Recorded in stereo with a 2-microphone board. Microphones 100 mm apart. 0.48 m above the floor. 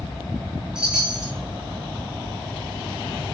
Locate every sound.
0.8 s a chime: 10° right (ahead or behind), 1.1 m